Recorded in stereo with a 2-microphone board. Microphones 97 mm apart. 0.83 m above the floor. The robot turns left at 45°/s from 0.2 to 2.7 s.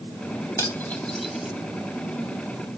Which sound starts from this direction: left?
Cutlery clinking, at 0.6 s.